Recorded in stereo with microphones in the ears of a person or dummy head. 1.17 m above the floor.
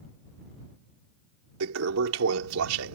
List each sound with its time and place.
1.6 s a toilet flushing: 90° right